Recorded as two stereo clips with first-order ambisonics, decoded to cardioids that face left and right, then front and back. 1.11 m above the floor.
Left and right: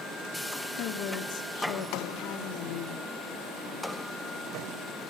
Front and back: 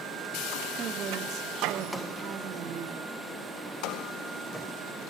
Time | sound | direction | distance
0.8 | a woman speaking | 125° left | 2 m